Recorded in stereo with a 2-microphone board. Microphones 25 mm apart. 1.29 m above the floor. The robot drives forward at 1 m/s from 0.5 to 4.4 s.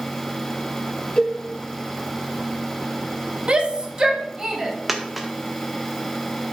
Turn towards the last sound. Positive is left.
turn(degrees=-10)  # may be behind; listen again after turning